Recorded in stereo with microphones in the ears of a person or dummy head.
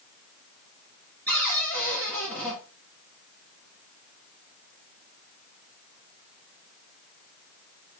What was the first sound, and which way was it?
A cupboard door, 5° left (ahead or behind).